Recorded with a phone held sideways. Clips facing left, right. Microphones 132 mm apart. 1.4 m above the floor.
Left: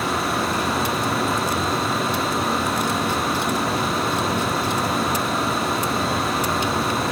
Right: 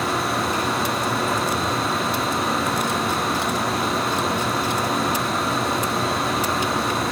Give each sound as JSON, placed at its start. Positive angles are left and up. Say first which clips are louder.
{"t": 0.0, "sound": "a fan", "louder": "even", "side_deg": 0, "distance_m": 1.6}